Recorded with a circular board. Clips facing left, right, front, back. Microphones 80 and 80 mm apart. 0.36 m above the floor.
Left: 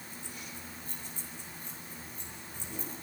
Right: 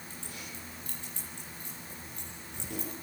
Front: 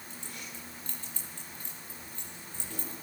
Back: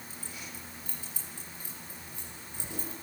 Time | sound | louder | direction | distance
0.1 | keys jangling | even, front 1 dB | 95° right | 9 m